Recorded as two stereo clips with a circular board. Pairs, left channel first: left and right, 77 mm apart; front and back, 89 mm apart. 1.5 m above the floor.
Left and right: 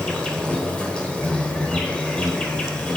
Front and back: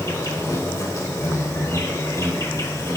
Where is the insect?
25° left, 1.5 m.